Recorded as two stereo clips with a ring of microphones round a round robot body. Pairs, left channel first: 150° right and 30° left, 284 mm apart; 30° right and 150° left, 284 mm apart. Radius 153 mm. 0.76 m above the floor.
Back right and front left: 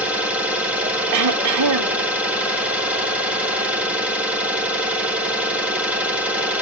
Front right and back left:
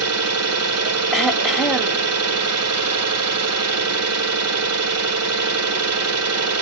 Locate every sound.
0.0 s an engine running: 115° left, 3 m
1.1 s throat clearing: 60° left, 1.3 m